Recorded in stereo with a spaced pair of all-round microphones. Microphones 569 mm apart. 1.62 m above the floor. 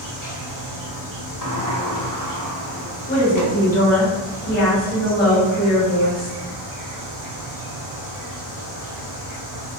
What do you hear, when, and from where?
0.0 s an insect: 35° right (ahead or behind), 0.9 m
1.4 s a sliding door: 35° left (ahead or behind), 0.5 m
3.1 s a woman speaking: 15° left (ahead or behind), 1.5 m